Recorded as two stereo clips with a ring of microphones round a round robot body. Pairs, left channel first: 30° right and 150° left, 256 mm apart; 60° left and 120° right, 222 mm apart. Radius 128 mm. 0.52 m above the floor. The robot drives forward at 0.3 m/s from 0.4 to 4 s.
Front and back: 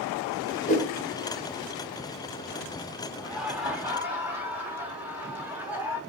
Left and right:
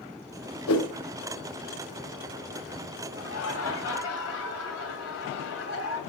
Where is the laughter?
60° left, 2.5 m; by 6.0 s 65° left, 2.5 m.